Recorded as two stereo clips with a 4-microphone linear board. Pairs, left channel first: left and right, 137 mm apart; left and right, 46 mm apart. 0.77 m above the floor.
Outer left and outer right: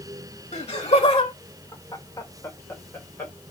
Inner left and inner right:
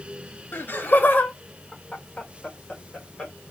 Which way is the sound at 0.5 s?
50° left (ahead or behind).